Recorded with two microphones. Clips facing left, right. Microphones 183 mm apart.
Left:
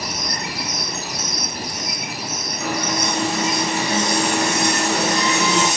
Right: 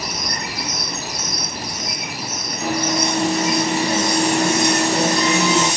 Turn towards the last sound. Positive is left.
turn(degrees=-35)  # may be behind; listen again after turning